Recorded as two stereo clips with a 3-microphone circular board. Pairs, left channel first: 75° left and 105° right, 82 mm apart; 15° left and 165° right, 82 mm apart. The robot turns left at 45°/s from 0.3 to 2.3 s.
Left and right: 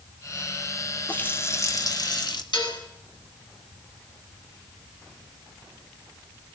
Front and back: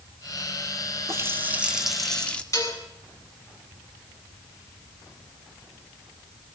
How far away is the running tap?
About 2.5 m.